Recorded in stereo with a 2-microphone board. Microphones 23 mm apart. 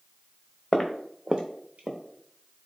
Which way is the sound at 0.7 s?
20° left (ahead or behind).